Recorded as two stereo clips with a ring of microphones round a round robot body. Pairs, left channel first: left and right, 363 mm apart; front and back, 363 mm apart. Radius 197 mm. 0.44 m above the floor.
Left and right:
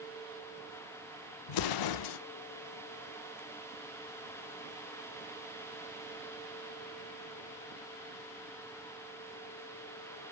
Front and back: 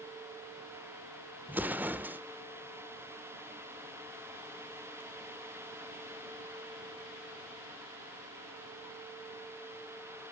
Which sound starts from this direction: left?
An explosion, at 1.5 s.